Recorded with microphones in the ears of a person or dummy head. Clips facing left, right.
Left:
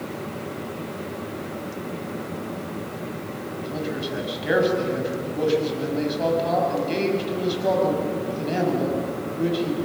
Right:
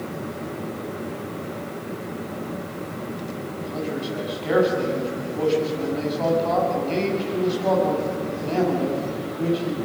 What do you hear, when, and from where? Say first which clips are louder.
3.6 s a man speaking: right 1 dB; 15° left (ahead or behind), 6.5 m